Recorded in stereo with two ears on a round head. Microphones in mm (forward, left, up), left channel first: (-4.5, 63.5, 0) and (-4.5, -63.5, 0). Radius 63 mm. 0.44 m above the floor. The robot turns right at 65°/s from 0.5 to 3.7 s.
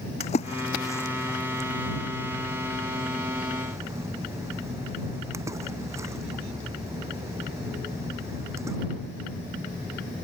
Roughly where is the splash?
Left.